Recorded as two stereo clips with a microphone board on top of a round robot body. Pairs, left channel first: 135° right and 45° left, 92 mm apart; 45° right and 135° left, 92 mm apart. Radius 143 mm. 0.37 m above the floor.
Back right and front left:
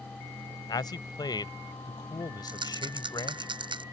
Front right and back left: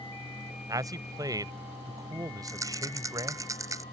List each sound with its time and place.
0.7 s a man speaking: 175° right
2.5 s a rattle: 80° left